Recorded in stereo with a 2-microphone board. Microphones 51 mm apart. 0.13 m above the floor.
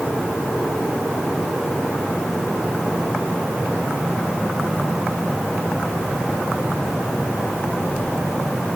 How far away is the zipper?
No zipper in this recording.